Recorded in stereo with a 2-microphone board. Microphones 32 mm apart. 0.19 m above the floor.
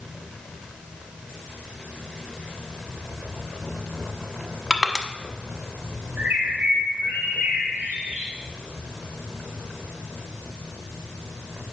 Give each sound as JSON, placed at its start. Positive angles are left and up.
{"t": 4.7, "sound": "crushing", "side_deg": -5, "distance_m": 0.9}
{"t": 6.2, "sound": "a bird", "side_deg": -65, "distance_m": 2.5}